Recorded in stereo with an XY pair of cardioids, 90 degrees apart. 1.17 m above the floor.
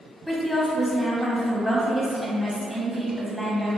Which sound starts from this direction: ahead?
A woman speaking, at 0.3 s.